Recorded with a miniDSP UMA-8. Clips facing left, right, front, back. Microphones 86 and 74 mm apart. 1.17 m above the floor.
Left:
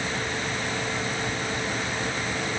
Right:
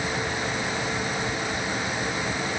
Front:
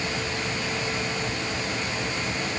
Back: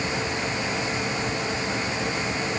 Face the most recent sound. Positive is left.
No sound to turn to.